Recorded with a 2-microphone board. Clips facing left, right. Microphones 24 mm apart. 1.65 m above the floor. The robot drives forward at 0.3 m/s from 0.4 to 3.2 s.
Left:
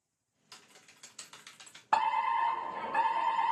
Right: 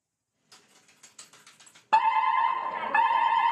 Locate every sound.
0.5 s typing on a keyboard: 25° left (ahead or behind), 1.2 m; by 1.8 s 30° left (ahead or behind), 0.9 m
1.9 s a fire alarm: 25° right (ahead or behind), 0.6 m; by 3.5 s 35° right (ahead or behind), 0.5 m